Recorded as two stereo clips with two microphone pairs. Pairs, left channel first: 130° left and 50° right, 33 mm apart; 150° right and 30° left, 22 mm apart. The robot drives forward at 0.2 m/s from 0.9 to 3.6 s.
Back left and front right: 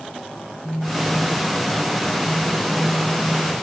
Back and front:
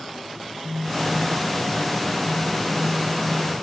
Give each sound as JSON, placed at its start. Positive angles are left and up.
{"t": 0.6, "sound": "a phone buzzing", "azimuth_deg": 60, "distance_m": 4.0}